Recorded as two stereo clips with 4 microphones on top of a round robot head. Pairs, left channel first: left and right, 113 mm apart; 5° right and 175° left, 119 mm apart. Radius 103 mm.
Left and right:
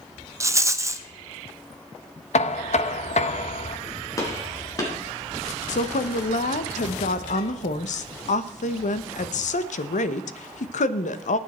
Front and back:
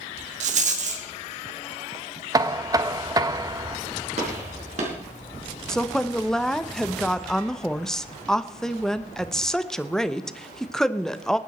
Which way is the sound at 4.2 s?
150° left.